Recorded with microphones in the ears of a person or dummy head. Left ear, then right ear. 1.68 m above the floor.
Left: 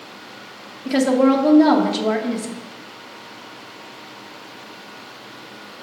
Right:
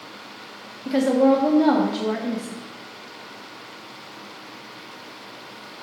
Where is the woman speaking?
15° left (ahead or behind), 0.7 m.